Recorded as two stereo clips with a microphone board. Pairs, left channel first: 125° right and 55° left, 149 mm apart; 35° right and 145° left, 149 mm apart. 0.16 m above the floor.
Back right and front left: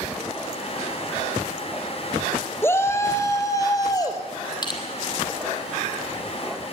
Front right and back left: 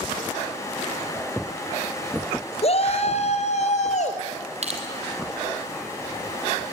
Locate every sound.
2.6 s a shout: 55° right, 2.5 m; by 4.2 s 65° right, 4 m
4.6 s crushing: straight behind, 3.5 m